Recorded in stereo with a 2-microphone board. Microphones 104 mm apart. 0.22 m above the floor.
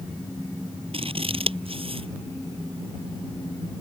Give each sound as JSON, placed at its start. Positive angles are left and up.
{"t": 0.9, "sound": "scissors", "side_deg": -70}